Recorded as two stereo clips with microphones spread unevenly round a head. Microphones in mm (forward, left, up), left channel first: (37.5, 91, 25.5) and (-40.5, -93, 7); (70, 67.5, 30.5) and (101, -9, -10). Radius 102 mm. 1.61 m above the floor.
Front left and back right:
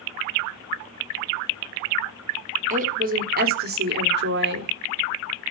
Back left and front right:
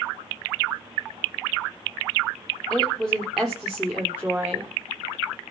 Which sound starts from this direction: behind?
A woman speaking, at 2.7 s.